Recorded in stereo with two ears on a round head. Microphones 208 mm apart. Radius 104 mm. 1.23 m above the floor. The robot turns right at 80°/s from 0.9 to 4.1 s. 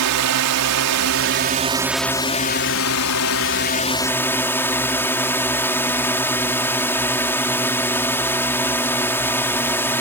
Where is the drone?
85° right; by 10.0 s 170° left.